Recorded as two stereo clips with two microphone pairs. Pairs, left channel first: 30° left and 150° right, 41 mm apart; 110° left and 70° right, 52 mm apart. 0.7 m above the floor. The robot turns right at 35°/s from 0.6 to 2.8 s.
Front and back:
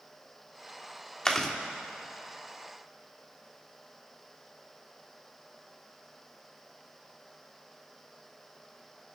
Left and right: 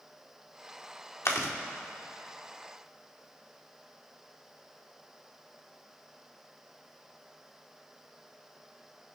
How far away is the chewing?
About 1.5 m.